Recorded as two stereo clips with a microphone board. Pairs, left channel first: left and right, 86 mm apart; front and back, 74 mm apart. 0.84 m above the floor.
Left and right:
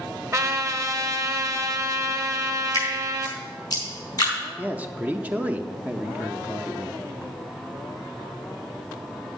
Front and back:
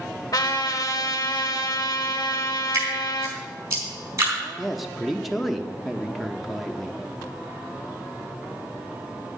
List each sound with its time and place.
0.3 s a trumpet: 35° right, 1.1 m
2.7 s dripping: 135° left, 4.5 m
4.6 s a man speaking: 90° right, 0.7 m